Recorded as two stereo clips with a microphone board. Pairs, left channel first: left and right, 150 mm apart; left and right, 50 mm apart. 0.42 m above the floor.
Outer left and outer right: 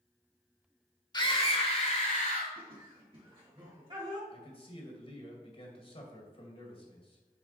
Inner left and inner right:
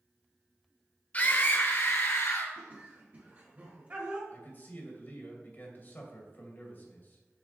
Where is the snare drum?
I don't hear a snare drum.